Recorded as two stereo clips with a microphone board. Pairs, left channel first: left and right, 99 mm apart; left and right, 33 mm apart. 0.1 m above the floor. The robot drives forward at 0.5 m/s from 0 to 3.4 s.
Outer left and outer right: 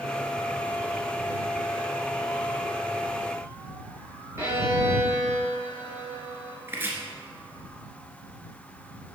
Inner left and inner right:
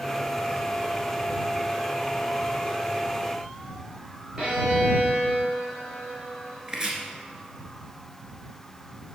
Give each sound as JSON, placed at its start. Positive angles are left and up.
{"t": 4.4, "sound": "a violin", "side_deg": -25, "distance_m": 2.5}
{"t": 6.7, "sound": "chopping", "side_deg": -25, "distance_m": 1.7}